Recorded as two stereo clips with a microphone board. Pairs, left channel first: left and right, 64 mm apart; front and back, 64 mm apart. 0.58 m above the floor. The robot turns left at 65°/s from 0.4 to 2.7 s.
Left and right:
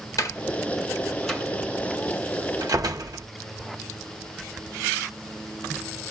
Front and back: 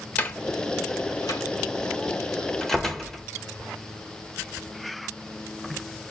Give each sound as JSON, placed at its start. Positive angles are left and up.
{"t": 0.2, "sound": "a door slam", "azimuth_deg": 65, "distance_m": 1.3}